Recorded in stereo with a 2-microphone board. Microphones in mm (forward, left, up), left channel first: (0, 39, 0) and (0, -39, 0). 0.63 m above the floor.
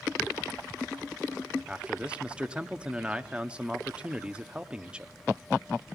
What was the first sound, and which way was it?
A man speaking, 10° right (ahead or behind).